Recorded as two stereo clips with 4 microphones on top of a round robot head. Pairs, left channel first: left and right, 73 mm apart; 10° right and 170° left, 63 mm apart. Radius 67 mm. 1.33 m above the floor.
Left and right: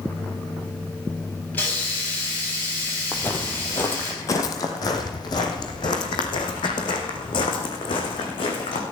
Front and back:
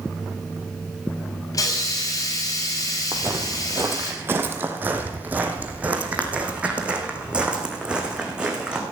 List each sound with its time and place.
1.5 s a hiss: 20° left, 6 m
3.1 s footsteps: 155° left, 1.6 m; by 8.8 s 95° left, 4.5 m